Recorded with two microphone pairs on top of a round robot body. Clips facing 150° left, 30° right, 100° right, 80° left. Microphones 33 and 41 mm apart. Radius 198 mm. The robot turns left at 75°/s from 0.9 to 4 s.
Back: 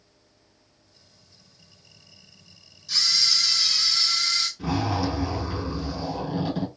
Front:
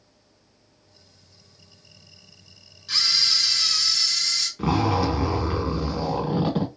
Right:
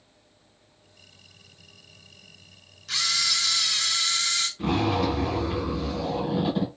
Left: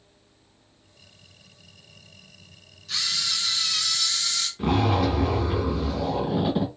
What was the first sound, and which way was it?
A camera shutter, 70° right.